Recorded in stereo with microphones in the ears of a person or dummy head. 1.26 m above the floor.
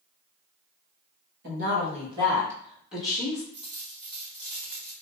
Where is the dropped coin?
Centre (ahead or behind), 1.3 m.